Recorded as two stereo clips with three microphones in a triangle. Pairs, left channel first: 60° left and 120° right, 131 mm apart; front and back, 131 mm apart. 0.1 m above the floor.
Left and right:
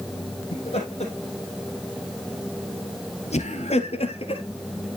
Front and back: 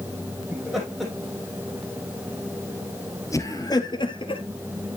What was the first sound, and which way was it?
Laughter, 95° left.